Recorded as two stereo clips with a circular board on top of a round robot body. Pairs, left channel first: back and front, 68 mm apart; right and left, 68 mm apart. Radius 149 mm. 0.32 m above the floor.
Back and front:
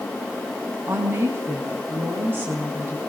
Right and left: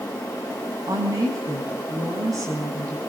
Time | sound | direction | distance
0.9 | a woman speaking | 60° left | 4 m